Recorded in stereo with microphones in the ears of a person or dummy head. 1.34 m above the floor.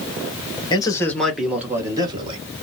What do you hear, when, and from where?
0.7 s a man speaking: 25° left (ahead or behind), 1.2 m; by 2.4 s 30° right (ahead or behind), 1.7 m